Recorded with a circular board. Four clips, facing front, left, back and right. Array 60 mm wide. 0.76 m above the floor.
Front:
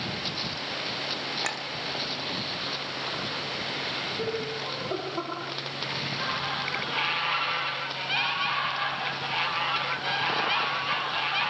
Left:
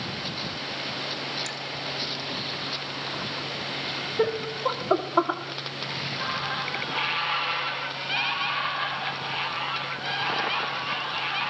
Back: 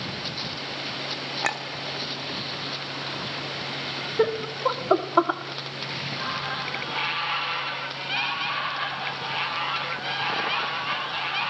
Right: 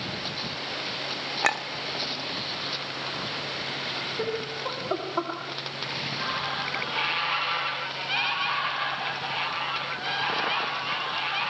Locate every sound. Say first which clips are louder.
1.4 s a clink: right 10 dB, back 8 dB; 115° right, 1.0 m
4.2 s laughter: left 7 dB, back 11 dB; 160° left, 1.5 m